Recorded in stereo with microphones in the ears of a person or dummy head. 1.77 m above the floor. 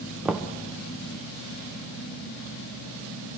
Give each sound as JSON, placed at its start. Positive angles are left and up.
{"t": 0.2, "sound": "knocking", "side_deg": -5, "distance_m": 1.0}